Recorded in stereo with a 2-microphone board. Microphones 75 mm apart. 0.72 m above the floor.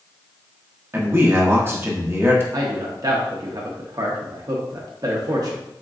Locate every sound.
0.9 s a man speaking: 30° right (ahead or behind), 0.8 m
2.5 s a man speaking: 50° right (ahead or behind), 0.7 m